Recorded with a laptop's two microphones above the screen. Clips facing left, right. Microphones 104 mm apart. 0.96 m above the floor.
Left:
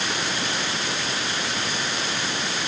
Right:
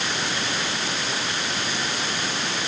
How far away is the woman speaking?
I don't hear a woman speaking.